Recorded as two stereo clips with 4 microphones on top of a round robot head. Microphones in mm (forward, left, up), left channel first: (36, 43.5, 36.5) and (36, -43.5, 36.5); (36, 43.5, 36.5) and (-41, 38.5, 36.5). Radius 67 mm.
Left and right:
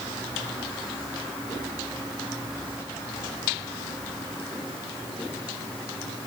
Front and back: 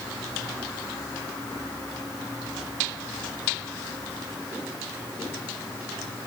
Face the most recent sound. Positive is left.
No sound to turn to.